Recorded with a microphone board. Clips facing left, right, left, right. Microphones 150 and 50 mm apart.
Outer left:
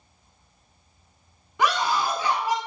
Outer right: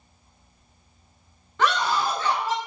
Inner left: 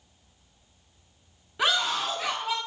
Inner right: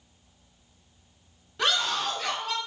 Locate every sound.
1.6 s a scream: 15° left (ahead or behind), 1.1 m